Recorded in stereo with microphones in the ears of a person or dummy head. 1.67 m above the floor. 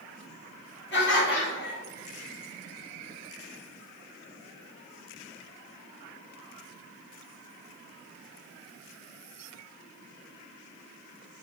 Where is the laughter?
65° left (ahead or behind), 2 m.